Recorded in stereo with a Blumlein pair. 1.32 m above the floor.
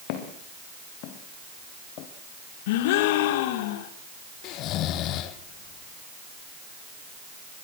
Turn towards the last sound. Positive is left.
turn(degrees=35)